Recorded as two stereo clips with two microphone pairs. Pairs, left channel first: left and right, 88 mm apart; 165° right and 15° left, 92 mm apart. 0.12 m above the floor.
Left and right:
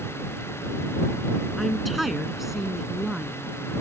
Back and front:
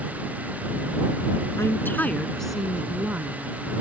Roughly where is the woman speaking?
Behind.